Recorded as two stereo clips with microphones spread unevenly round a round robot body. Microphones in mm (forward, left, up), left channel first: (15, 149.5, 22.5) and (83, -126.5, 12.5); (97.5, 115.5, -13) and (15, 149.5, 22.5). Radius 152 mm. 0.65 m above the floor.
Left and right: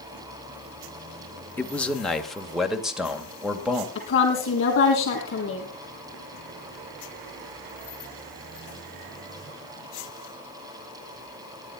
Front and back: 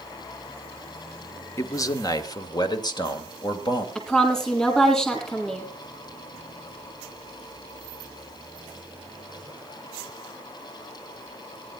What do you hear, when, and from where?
1.6 s a man speaking: 20° left, 1.3 m; by 3.9 s 10° left, 3 m
4.0 s a woman speaking: 55° left, 7.5 m